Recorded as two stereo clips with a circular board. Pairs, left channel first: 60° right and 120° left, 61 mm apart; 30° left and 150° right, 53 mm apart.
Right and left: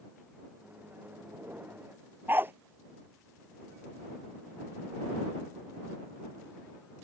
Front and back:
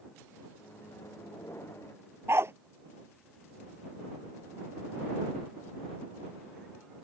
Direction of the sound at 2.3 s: 175° left.